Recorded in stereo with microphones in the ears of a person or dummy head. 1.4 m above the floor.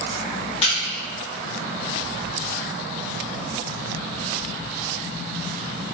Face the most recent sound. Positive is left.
turn(degrees=35)  # may be behind; listen again after turning